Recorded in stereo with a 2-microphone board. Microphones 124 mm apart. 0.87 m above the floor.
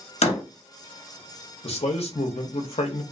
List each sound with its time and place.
0.2 s a door slam: 65° left (ahead or behind), 0.8 m
1.6 s a man speaking: 60° left (ahead or behind), 0.7 m